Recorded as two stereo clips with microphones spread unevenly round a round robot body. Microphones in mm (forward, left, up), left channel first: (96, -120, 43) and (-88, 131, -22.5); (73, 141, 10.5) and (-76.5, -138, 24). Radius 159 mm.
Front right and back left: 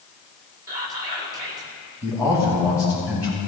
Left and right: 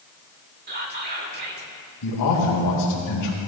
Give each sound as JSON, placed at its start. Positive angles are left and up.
{"t": 0.7, "sound": "whispering", "azimuth_deg": -170, "distance_m": 1.9}
{"t": 2.0, "sound": "a man speaking", "azimuth_deg": 30, "distance_m": 3.0}